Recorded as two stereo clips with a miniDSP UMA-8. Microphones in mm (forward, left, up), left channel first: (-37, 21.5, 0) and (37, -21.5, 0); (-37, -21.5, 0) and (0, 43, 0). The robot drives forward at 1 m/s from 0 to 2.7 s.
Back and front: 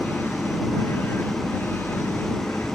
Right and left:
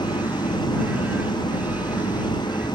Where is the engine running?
120° right; by 2.8 s 125° right.